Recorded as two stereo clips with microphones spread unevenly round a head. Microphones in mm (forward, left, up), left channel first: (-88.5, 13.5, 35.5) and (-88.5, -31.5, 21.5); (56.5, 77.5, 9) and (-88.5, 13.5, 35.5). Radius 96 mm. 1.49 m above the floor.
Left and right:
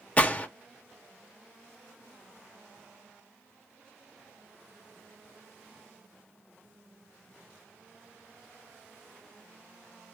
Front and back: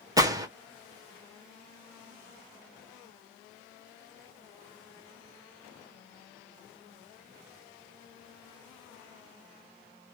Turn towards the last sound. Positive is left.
turn(degrees=140)